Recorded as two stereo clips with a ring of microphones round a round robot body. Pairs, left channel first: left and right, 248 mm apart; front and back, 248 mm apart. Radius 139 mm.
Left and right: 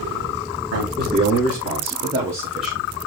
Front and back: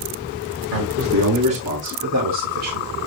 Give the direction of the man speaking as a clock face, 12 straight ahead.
5 o'clock.